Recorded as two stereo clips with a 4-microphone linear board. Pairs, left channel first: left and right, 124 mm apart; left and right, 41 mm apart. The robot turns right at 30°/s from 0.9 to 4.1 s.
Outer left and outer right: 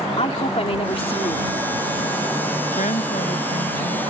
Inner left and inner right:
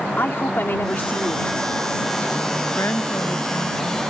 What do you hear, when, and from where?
0.2 s a woman speaking: 55° left (ahead or behind); by 1.7 s 30° left (ahead or behind)
2.8 s a woman speaking: 100° left; by 4.0 s 140° left